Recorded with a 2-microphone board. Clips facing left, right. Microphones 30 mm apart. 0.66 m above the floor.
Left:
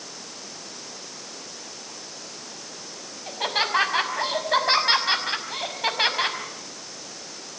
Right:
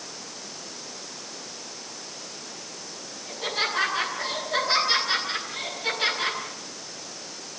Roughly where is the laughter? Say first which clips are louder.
Left 3 dB; left.